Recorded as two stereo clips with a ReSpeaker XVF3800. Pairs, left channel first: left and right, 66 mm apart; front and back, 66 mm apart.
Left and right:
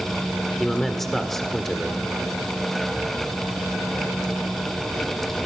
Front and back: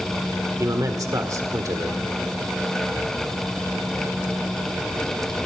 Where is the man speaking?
175° left, 1.7 m.